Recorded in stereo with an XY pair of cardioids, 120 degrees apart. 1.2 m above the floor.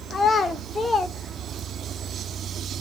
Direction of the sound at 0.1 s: 40° left.